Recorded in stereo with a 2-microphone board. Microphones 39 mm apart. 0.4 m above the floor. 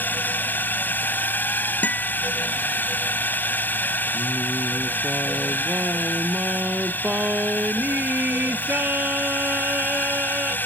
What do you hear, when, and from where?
0.0 s a drone: 50° left (ahead or behind)
1.8 s a guitar: 40° left (ahead or behind)
4.1 s singing: 45° right (ahead or behind)